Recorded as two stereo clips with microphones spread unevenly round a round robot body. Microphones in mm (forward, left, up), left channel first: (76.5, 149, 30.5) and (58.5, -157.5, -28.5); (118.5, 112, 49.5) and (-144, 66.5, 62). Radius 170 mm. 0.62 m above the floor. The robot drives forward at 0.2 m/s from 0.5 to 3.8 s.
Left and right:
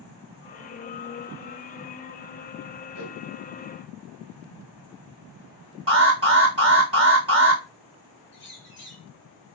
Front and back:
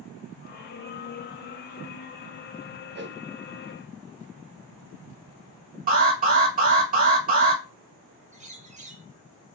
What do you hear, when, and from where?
3.0 s a whoosh: 140° left, 0.8 m
5.9 s an alarm: 130° right, 1.8 m
8.3 s a bird: 130° left, 1.2 m